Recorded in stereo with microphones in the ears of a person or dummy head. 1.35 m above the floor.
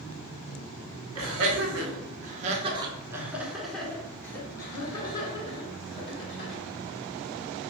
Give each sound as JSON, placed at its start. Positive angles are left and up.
{"t": 1.1, "sound": "laughter", "side_deg": -65, "distance_m": 1.1}